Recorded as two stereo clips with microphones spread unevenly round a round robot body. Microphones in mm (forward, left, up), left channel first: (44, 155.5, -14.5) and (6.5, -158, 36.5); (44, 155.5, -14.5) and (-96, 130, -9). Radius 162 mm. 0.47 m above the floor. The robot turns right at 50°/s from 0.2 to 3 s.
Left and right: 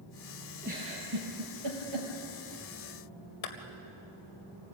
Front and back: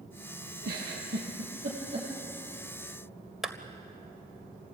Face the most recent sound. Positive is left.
turn(degrees=100)